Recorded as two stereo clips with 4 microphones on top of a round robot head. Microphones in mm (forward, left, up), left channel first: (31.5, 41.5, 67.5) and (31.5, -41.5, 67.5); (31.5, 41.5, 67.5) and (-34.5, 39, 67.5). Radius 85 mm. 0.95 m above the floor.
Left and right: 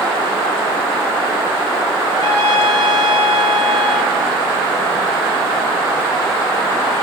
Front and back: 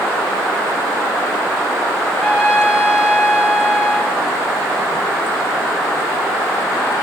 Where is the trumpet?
75° right, 0.9 m.